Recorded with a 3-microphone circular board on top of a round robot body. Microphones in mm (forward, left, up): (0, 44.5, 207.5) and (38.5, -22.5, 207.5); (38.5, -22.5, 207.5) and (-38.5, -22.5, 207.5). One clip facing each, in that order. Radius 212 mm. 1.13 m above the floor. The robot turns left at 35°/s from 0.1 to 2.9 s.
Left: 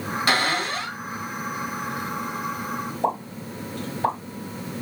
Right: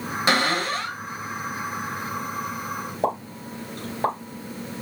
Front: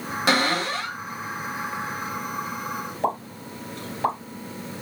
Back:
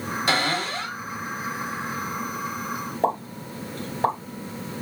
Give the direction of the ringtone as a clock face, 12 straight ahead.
No ringtone in this recording.